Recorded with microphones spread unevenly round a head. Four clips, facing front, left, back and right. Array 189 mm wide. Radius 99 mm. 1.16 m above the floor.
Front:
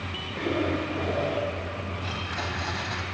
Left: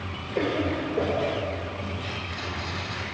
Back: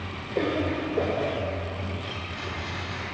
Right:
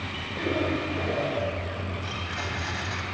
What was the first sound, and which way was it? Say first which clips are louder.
A cough: left 2 dB, back 1 dB; 135° left.